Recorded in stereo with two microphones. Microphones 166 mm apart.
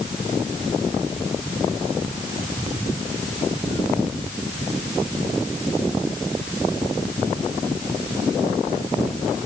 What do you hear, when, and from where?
Only background noise.